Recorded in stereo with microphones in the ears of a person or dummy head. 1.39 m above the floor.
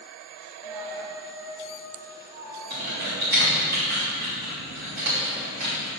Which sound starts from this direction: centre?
A dropped coin, at 0.6 s.